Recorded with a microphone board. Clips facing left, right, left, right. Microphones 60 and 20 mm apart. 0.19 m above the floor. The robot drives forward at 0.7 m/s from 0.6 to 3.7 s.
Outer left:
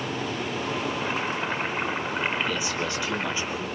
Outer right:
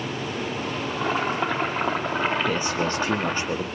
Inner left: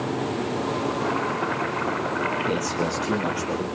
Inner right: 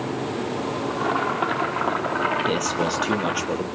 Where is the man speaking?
40° right (ahead or behind), 4 m; by 3.7 s 50° right (ahead or behind), 3.5 m.